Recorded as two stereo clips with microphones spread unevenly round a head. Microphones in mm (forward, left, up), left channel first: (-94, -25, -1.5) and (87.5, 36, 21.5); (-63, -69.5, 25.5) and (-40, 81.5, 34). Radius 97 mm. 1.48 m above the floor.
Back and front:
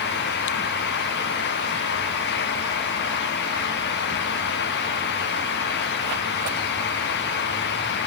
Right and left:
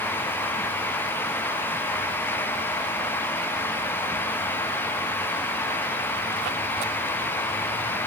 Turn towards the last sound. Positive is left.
No sound to turn to.